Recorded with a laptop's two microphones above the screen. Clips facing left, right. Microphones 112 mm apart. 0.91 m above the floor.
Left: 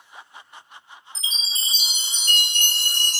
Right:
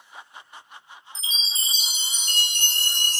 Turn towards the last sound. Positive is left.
turn(degrees=65)  # may be behind; listen again after turning